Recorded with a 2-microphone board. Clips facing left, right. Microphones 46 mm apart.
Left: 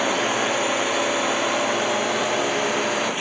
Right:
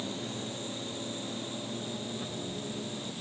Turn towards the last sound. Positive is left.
turn(degrees=80)